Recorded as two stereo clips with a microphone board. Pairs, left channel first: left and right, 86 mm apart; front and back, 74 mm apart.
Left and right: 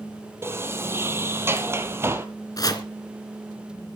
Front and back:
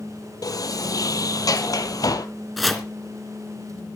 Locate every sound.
0.4 s a sliding door: 30° right, 1.4 m
2.6 s chopping: 90° left, 2.5 m